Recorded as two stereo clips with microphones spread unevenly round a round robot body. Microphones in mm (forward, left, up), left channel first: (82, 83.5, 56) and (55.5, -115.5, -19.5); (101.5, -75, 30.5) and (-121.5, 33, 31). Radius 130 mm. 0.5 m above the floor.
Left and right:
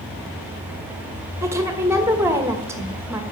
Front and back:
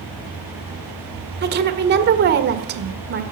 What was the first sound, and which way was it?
A woman speaking, 160° right.